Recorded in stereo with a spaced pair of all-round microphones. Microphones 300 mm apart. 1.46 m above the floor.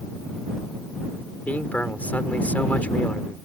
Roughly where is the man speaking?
Centre.